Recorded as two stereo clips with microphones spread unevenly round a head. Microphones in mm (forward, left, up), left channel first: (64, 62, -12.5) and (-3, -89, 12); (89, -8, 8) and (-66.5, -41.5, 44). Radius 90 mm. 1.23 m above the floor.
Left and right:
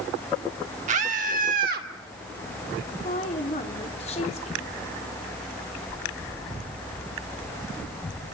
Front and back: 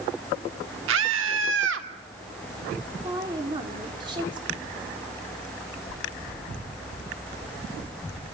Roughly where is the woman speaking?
Behind left.